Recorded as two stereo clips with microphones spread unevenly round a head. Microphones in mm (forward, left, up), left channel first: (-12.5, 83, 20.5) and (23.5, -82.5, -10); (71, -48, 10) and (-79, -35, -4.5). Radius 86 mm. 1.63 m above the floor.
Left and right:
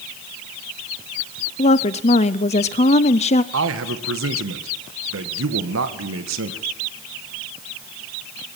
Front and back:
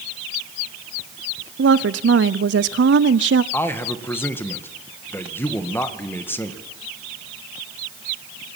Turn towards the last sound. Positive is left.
turn(degrees=-80)